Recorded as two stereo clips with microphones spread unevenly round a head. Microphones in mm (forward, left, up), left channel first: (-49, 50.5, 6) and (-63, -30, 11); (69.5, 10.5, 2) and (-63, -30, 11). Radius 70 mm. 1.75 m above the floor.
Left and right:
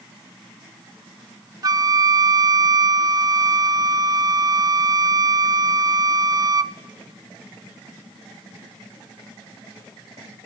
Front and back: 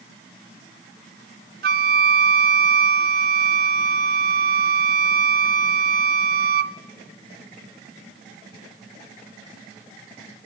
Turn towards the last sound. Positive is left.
turn(degrees=-145)